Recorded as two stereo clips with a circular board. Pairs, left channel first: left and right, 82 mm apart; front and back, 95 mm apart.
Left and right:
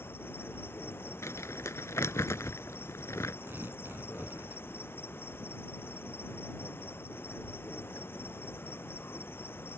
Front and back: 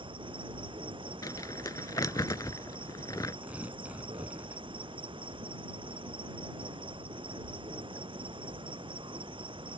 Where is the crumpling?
40° left.